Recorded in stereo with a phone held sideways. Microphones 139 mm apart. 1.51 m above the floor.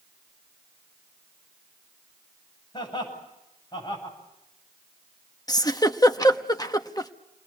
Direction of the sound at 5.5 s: 25° left (ahead or behind).